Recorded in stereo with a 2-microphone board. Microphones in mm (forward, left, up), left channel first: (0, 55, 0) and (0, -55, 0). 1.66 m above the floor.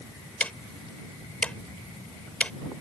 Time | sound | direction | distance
0.4 | ticking | 10° left (ahead or behind) | ?